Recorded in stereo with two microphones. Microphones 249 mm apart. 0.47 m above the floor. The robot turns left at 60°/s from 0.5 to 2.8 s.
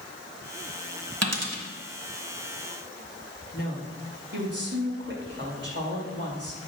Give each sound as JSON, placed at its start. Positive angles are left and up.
{"t": 1.2, "sound": "a dropped coin", "side_deg": -75, "distance_m": 1.4}
{"t": 3.5, "sound": "a woman speaking", "side_deg": -45, "distance_m": 2.5}